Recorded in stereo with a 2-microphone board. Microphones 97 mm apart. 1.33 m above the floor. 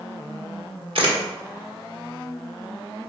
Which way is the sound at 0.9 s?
65° right (ahead or behind).